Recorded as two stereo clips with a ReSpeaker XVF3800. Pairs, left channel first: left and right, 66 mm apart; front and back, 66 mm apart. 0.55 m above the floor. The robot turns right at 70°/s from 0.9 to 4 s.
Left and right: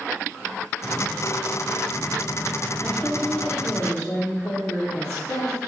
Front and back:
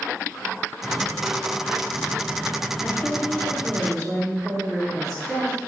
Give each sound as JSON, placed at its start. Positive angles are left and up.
{"t": 2.8, "sound": "a woman speaking", "azimuth_deg": 5, "distance_m": 0.7}